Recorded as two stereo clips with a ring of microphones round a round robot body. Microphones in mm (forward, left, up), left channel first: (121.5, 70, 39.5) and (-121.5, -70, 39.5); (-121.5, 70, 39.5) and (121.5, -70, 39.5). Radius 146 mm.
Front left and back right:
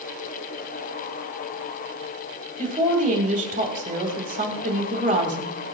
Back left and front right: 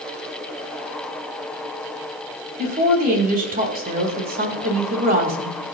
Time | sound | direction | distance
2.6 | a woman speaking | 90° right | 3 m